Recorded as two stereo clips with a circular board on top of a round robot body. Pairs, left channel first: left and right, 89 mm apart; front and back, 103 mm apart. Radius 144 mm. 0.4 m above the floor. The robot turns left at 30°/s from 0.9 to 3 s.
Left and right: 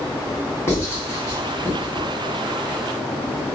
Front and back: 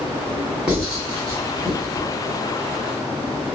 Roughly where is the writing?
Left.